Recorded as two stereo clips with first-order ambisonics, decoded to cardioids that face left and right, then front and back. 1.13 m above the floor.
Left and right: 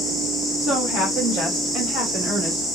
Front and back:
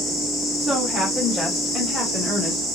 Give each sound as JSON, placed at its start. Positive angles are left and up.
{"t": 0.6, "sound": "a woman speaking", "azimuth_deg": -90, "distance_m": 1.8}